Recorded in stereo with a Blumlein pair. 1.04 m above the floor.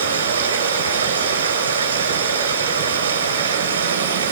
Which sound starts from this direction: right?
Running water, at 0.0 s.